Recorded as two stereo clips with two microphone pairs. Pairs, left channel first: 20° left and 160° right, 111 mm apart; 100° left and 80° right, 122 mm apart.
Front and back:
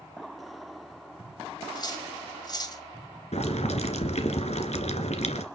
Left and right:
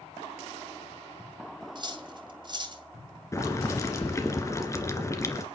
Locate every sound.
1.8 s cutlery clinking: 30° right, 2 m
3.3 s boiling: 35° left, 2.5 m